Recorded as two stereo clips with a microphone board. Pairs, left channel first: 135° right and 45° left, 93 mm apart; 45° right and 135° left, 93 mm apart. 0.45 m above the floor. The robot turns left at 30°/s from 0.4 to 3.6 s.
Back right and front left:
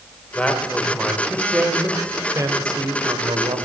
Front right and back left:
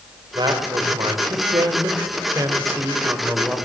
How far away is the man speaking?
About 1.9 m.